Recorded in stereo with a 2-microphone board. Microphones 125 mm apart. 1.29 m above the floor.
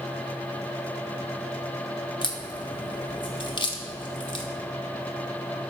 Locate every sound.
2.2 s a crack: 45° left (ahead or behind), 1.3 m